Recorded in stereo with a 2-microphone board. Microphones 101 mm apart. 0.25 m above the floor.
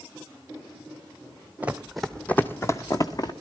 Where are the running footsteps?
15° right (ahead or behind), 0.8 m; by 3.3 s 45° left (ahead or behind), 1.1 m.